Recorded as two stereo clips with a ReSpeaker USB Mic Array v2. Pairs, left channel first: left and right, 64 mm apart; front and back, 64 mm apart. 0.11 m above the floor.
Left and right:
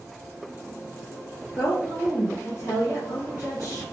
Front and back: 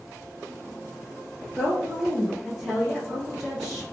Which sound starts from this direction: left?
A woman speaking, at 1.6 s.